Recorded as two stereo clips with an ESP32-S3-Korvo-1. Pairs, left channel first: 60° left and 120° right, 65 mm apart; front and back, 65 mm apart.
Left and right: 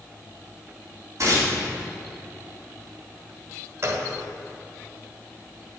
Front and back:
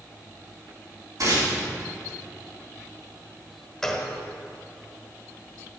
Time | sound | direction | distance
1.2 | tearing paper | 160° right | 3.5 m
3.8 | a gunshot | 80° right | 1.6 m